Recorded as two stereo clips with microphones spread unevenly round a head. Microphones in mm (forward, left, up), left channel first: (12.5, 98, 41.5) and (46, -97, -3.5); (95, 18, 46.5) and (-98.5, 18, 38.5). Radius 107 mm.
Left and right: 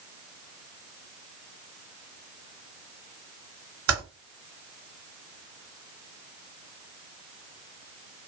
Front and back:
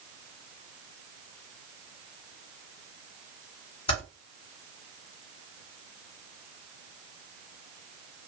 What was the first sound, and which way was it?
Typing on a keyboard, 60° right.